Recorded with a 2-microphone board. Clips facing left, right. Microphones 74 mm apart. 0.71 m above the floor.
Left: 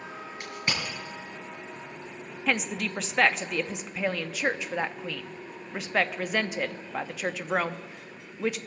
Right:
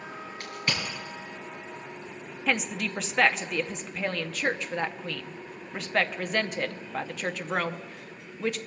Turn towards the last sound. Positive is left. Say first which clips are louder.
# even
turn(degrees=5)  # may be behind; listen again after turning